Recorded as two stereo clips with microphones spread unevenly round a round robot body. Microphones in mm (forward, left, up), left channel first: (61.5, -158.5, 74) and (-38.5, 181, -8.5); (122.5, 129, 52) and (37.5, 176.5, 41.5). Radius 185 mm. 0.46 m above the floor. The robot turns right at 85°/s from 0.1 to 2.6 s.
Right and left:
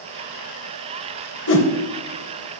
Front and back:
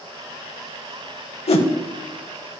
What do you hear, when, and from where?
1.5 s a whoosh: 20° right, 1.0 m; by 1.7 s straight ahead, 1.0 m